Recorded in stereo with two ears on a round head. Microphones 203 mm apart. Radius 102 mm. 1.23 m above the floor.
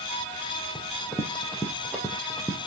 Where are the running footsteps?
5° left (ahead or behind), 2.5 m; by 2.7 s centre (ahead or behind), 1.6 m.